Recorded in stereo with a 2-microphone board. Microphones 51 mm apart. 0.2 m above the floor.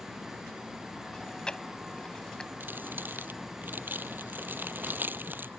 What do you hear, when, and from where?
1.1 s chewing: 20° left (ahead or behind)
2.6 s crumpling: 40° right (ahead or behind)